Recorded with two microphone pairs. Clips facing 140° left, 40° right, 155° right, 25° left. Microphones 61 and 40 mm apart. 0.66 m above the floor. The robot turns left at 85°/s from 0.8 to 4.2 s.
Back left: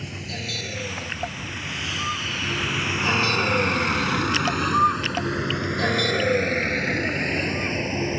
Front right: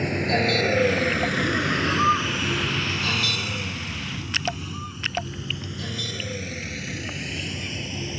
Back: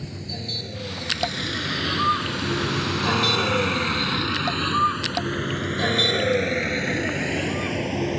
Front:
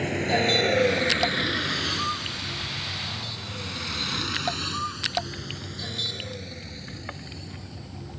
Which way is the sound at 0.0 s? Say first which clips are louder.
Front right 11 dB, front 11 dB; 10° right.